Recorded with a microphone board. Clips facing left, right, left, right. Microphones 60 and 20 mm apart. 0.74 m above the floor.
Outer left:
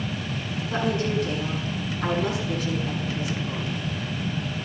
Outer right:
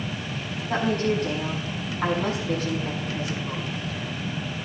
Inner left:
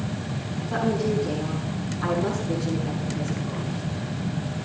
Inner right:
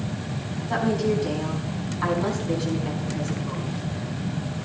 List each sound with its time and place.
0.7 s a woman speaking: 50° right (ahead or behind), 6 m